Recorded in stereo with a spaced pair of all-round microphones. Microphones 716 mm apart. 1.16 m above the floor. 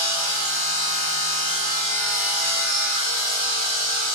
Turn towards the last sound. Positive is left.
turn(degrees=20)  # may be behind; listen again after turning